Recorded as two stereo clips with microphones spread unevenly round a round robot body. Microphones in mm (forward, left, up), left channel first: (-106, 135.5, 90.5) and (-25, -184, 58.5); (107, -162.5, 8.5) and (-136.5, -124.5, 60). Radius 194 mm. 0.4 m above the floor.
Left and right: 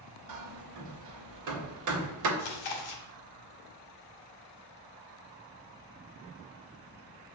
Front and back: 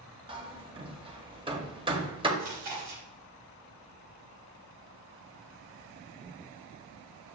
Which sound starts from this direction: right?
Hammering, at 0.3 s.